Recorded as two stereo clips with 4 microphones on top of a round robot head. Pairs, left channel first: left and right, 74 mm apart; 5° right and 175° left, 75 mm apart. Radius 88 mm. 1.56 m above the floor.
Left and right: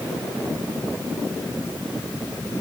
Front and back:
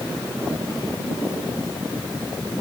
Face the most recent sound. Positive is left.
No sound to turn to.